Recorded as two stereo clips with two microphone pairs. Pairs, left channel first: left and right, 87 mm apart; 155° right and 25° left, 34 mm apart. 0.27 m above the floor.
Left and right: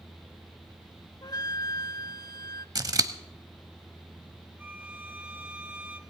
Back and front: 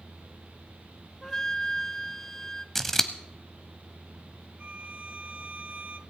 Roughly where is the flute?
Behind left.